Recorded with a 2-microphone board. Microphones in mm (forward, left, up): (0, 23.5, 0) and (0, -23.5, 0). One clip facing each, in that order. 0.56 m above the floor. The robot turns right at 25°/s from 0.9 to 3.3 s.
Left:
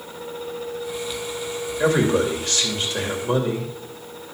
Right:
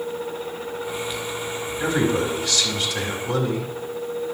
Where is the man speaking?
105° left, 2.5 m; by 3.7 s 145° left, 2.5 m.